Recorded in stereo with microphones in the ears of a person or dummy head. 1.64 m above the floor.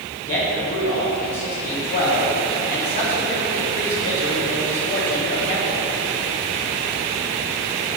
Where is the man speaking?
50° left (ahead or behind), 1.7 m.